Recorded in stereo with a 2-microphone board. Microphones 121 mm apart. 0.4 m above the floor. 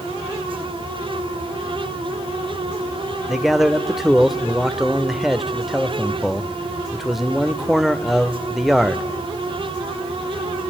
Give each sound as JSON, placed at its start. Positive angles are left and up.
{"t": 3.3, "sound": "a man speaking", "side_deg": 0, "distance_m": 0.9}